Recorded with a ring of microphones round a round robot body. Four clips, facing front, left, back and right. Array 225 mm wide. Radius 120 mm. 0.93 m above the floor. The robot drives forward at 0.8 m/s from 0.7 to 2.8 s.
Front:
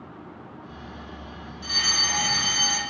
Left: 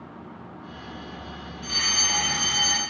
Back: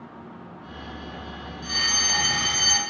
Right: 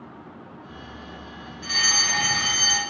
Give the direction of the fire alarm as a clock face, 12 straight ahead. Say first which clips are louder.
Right 4 dB, even; 2 o'clock.